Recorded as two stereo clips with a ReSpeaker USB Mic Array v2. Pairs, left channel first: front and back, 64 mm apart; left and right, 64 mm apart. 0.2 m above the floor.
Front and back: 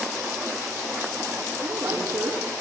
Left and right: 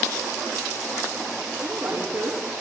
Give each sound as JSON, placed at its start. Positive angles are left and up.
{"t": 1.6, "sound": "a woman speaking", "azimuth_deg": -135, "distance_m": 6.5}